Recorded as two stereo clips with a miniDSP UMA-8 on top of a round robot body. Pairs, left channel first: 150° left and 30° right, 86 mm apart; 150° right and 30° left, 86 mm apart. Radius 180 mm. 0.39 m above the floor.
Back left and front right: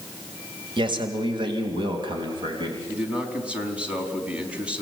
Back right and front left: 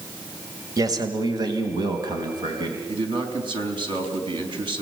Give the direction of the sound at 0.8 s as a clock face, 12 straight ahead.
12 o'clock.